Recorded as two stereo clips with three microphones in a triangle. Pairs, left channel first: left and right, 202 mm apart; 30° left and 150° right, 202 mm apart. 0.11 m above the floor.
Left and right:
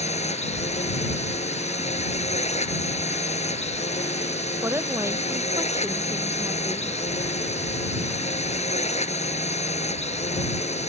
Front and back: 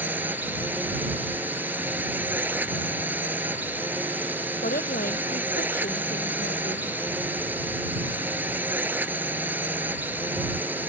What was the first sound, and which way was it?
A drone, 130° left.